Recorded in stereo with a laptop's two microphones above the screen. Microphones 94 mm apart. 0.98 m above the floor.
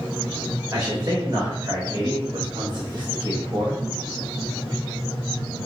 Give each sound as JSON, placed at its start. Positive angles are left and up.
{"t": 0.7, "sound": "a man speaking", "side_deg": -40, "distance_m": 1.8}